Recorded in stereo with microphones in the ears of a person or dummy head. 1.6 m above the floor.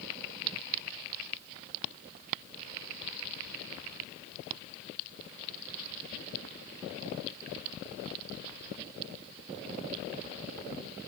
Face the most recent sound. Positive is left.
No sound to turn to.